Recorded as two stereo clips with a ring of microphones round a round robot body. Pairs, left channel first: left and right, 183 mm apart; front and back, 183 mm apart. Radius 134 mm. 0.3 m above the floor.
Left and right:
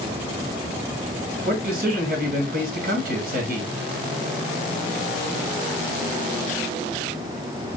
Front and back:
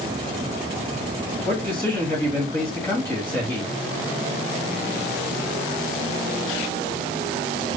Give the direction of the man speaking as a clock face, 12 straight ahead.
2 o'clock.